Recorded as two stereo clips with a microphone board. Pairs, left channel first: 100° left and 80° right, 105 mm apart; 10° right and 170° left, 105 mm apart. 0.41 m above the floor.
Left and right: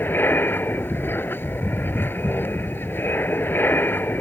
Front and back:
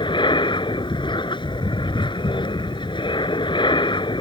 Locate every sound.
0.0 s an aircraft: 30° left